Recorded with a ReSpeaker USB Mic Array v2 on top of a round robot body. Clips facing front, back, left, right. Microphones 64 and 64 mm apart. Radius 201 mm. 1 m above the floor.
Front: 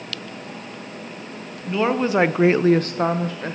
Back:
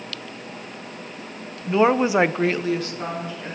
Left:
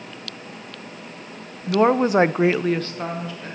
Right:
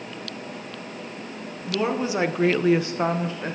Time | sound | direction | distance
1.7 | a woman speaking | 120° left | 1.4 m